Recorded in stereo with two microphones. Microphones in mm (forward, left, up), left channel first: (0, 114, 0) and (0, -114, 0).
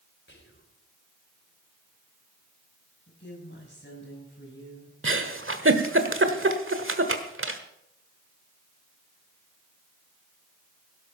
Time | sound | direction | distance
0.3 | whispering | 55° left (ahead or behind) | 3 m
3.1 | a woman speaking | 50° left (ahead or behind) | 6 m
5.0 | a giggle | 60° right (ahead or behind) | 1.3 m